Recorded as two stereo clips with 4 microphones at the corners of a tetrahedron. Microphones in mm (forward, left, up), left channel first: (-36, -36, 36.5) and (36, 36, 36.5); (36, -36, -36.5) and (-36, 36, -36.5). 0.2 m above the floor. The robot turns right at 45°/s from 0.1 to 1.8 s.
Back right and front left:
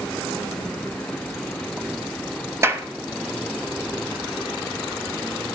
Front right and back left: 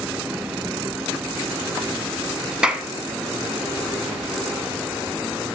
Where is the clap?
65° left, 1.2 m.